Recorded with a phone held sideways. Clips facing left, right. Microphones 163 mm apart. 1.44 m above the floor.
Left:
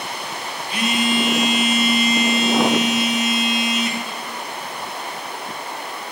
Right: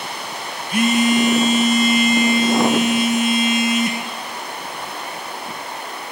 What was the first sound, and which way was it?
A phone buzzing, 45° right (ahead or behind).